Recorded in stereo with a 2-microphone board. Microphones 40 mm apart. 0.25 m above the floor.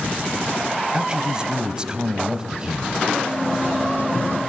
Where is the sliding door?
50° left (ahead or behind), 6 m.